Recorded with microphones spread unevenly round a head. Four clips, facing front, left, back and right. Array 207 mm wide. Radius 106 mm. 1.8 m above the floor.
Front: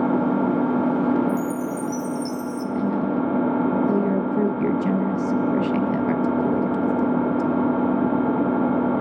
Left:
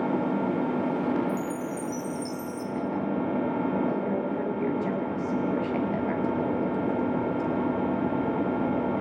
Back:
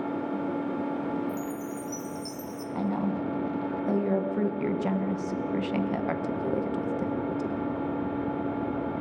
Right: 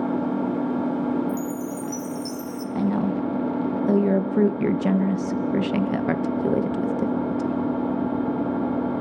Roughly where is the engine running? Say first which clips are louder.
Right 2 dB, front 10 dB; ahead.